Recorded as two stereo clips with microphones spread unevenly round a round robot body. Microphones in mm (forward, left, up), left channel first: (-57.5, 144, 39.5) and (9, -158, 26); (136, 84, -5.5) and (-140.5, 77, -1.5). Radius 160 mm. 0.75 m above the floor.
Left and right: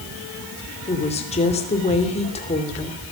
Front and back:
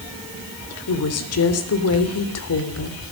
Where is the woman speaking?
30° left, 3 m.